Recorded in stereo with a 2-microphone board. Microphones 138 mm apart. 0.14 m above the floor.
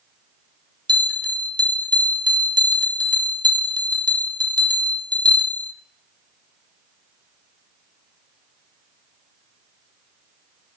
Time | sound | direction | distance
0.9 | a bell | 35° right (ahead or behind) | 0.8 m